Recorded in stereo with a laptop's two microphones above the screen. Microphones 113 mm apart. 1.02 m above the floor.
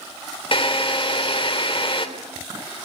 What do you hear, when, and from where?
0.5 s a drill: 50° left (ahead or behind), 2.5 m